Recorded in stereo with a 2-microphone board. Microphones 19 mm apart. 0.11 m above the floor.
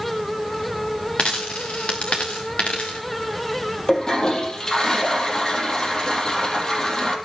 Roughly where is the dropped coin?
Left.